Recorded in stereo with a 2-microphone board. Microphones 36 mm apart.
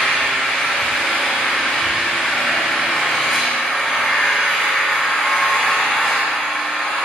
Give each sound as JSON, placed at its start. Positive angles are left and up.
{"t": 0.0, "sound": "an engine running", "side_deg": 15, "distance_m": 1.5}